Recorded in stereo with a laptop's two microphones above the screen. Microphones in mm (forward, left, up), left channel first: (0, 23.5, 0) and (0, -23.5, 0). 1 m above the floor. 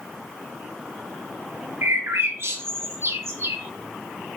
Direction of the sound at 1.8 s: 60° right (ahead or behind).